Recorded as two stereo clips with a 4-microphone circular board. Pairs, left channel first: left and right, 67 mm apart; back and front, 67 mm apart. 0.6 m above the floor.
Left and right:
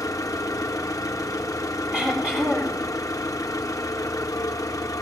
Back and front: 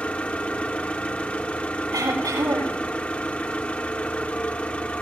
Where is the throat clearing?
15° right, 7 m.